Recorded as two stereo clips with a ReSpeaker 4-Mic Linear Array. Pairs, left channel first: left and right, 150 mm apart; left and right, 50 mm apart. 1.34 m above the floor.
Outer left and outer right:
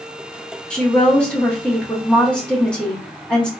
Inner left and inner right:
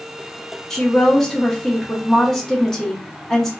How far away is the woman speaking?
About 1.1 m.